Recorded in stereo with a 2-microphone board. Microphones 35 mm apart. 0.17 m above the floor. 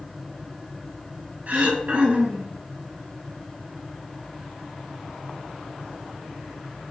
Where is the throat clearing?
50° right (ahead or behind), 0.6 m.